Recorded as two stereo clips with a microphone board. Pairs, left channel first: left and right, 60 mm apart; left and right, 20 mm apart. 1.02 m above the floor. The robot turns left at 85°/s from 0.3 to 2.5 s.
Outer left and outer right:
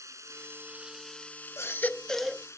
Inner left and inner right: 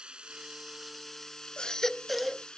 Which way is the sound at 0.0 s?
115° right.